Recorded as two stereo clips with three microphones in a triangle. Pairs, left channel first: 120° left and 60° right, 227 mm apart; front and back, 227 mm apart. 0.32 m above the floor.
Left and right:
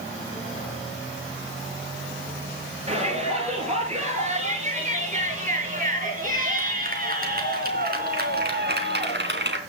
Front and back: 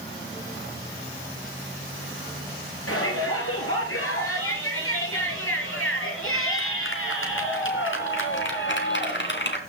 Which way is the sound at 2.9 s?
Straight ahead.